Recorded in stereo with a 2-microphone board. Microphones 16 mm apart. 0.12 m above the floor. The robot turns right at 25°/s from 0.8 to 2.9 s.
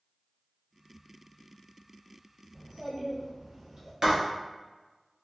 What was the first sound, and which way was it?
A child speaking, 40° right (ahead or behind).